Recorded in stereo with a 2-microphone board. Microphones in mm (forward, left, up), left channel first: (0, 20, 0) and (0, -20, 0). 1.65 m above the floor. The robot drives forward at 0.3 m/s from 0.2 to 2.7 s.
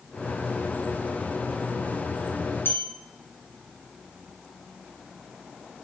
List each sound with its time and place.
2.6 s a bell: 70° left (ahead or behind), 1.0 m